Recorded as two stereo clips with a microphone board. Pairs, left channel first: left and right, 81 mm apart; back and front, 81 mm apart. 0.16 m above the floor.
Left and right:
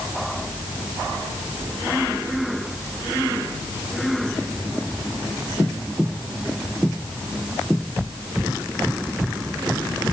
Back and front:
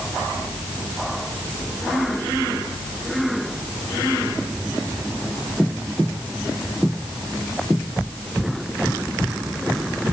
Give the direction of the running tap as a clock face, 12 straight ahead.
No running tap in this recording.